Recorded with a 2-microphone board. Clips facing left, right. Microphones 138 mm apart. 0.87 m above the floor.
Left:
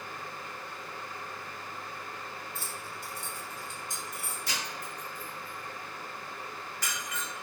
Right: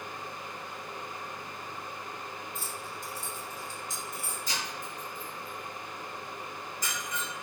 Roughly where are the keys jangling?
Left.